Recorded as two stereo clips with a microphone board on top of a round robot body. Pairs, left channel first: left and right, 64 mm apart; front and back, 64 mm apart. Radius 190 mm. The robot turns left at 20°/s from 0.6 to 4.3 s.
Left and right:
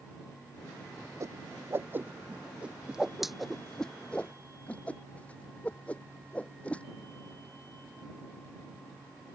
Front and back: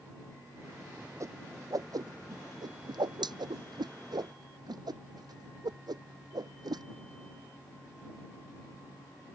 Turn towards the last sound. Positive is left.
turn(degrees=165)